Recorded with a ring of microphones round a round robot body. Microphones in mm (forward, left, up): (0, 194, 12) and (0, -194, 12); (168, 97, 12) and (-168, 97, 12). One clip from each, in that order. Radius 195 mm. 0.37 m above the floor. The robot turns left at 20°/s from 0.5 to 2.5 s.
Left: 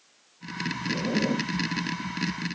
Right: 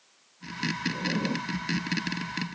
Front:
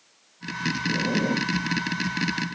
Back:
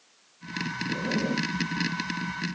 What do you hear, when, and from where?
0.9 s a zipper: 75° left; by 1.5 s 60° left